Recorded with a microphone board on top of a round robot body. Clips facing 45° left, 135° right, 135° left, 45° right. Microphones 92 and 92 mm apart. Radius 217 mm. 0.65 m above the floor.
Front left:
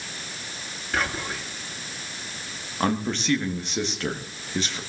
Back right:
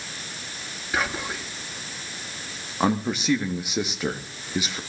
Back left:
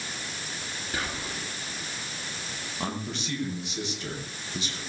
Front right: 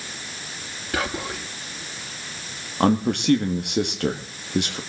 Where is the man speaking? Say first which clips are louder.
Back right 2 dB, front right 14 dB; 55° right, 1.8 m.